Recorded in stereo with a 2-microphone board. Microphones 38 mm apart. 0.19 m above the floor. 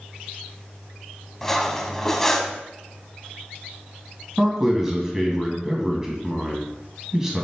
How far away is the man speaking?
About 1.6 m.